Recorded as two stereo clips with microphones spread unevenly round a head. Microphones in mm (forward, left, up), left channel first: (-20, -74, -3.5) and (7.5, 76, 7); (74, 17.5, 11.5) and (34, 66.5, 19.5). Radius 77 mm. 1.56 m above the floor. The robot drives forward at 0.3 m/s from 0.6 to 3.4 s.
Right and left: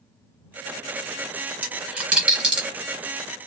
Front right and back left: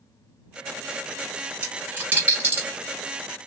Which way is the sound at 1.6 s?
140° left.